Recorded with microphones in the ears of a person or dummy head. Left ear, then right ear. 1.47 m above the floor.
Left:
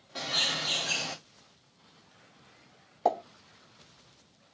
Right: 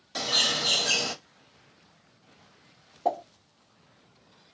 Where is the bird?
85° right, 0.8 m.